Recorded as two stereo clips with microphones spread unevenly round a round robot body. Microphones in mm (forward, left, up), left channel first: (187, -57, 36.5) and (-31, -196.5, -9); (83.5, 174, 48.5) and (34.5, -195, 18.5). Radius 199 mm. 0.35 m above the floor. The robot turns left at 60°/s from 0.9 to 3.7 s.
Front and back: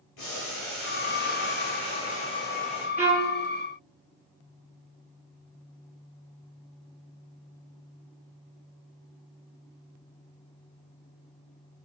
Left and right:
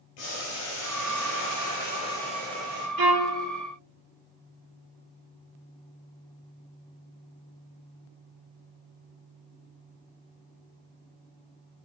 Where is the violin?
65° right, 3 m; by 3.4 s 90° right, 3 m.